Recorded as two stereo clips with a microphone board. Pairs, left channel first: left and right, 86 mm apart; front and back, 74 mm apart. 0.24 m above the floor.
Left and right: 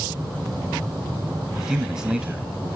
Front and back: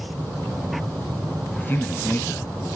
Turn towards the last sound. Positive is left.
turn(degrees=-15)